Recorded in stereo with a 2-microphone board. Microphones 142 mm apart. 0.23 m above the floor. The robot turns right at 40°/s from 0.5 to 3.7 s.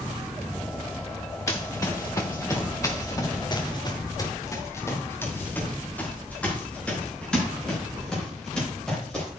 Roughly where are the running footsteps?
Left.